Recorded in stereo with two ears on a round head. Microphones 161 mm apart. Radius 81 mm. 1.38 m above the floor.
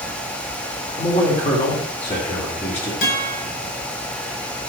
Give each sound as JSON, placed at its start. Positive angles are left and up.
{"t": 1.0, "sound": "a man speaking", "side_deg": 40, "distance_m": 3.0}
{"t": 3.0, "sound": "a guitar", "side_deg": 55, "distance_m": 4.0}